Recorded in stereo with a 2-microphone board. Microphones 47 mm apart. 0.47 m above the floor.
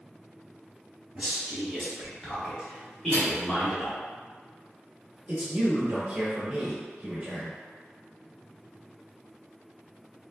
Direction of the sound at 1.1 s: 30° right (ahead or behind).